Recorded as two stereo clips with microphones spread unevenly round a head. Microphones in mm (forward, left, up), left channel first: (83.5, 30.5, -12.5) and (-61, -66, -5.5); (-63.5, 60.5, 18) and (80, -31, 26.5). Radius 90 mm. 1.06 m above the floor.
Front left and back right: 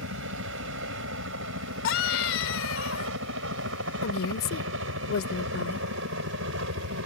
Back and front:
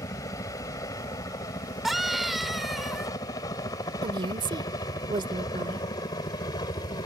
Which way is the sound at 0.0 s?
140° right.